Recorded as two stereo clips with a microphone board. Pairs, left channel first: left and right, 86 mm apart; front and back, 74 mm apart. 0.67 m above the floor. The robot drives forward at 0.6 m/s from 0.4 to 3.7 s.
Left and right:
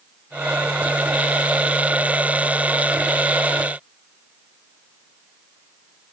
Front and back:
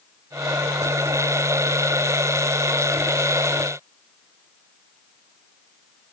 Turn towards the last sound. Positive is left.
No sound to turn to.